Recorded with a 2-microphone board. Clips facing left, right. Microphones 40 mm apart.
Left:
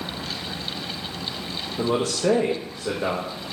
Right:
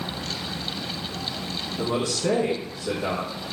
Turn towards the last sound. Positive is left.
turn(degrees=60)  # may be behind; listen again after turning